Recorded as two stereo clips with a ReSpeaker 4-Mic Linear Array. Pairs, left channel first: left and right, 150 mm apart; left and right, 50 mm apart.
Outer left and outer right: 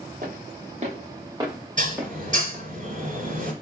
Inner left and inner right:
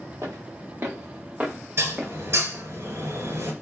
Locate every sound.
0.2 s footsteps: 65° right (ahead or behind), 1.6 m; by 2.6 s 5° left (ahead or behind), 2.0 m
1.8 s dishes clattering: 55° right (ahead or behind), 1.8 m